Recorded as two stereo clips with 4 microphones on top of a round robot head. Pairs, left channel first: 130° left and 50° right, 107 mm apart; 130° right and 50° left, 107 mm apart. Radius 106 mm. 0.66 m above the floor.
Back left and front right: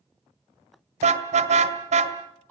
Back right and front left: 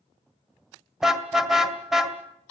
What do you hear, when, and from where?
1.0 s a car horn: 40° right, 2 m